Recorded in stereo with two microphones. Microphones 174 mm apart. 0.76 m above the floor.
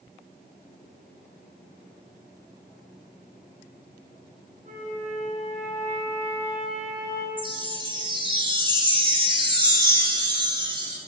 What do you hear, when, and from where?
4.6 s a flute: 50° right (ahead or behind), 4.5 m
7.4 s a chime: 25° right (ahead or behind), 1.2 m